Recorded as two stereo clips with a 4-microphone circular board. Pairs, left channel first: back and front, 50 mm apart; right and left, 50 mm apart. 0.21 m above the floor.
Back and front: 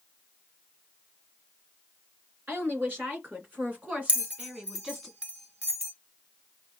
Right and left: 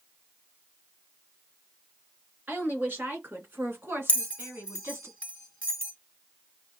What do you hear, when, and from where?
2.5 s a woman speaking: 40° left, 3 m; by 5.1 s 80° left, 2.0 m
4.1 s a bell: 45° right, 1.5 m